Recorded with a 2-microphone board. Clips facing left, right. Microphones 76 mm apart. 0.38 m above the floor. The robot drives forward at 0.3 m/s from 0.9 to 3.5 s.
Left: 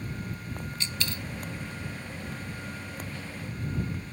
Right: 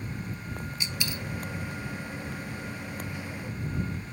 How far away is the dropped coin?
About 0.5 m.